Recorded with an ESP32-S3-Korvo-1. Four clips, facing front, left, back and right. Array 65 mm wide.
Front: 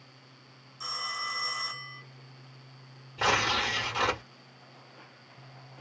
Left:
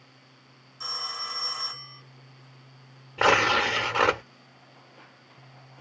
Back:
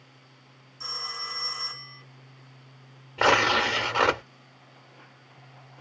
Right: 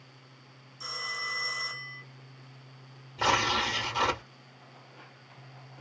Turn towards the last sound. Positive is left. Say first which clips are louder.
# left 6 dB, back 6 dB
turn(degrees=125)